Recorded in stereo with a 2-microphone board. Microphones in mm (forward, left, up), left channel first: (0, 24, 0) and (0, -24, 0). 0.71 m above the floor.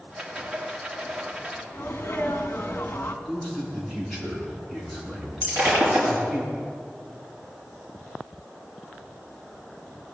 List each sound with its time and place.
0.1 s a rattle: 20° right (ahead or behind), 1.6 m
1.7 s a sneeze: 50° left (ahead or behind), 1.5 m
3.2 s a man speaking: 5° right (ahead or behind), 6.5 m
5.4 s breaking glass: 35° right (ahead or behind), 6.5 m